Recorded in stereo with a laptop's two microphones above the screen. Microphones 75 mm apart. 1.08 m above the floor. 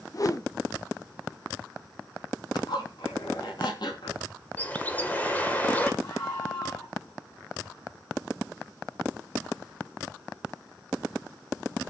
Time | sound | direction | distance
0.1 | a whoosh | 45° left (ahead or behind) | 0.8 m
2.5 | a zipper | 70° left (ahead or behind) | 3.5 m
4.6 | a bird | 25° left (ahead or behind) | 1.5 m
6.0 | a scream | 60° left (ahead or behind) | 8.5 m